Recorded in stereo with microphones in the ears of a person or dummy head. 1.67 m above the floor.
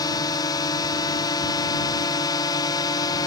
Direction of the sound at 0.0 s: 25° left (ahead or behind).